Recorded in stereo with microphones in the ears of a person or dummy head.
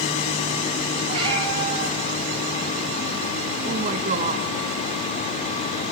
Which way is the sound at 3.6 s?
35° right (ahead or behind).